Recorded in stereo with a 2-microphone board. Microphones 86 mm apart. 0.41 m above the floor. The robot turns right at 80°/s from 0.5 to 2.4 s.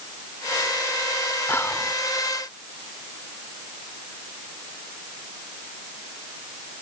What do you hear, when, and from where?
1.5 s whispering: 25° left (ahead or behind), 0.9 m; by 1.9 s 15° left (ahead or behind), 0.9 m